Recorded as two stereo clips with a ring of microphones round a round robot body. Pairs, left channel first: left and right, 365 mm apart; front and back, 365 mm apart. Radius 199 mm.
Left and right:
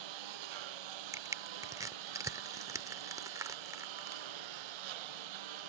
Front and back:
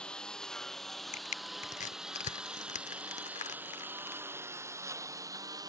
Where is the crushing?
25° right.